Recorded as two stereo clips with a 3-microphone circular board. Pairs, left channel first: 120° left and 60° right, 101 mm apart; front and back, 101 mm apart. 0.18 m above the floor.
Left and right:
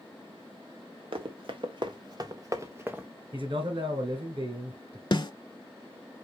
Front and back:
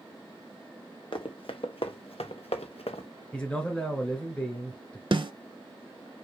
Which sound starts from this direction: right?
A man speaking, at 3.3 s.